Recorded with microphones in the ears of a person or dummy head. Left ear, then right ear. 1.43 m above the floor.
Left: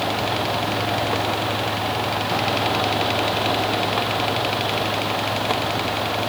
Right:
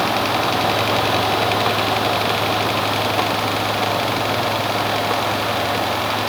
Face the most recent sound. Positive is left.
No sound to turn to.